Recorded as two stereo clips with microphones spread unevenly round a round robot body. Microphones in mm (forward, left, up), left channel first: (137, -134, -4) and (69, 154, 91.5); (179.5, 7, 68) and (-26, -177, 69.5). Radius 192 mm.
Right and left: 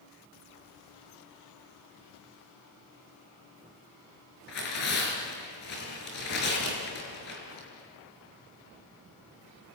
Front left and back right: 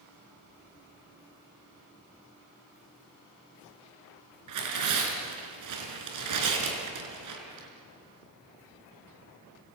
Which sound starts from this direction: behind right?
Tearing paper, at 4.5 s.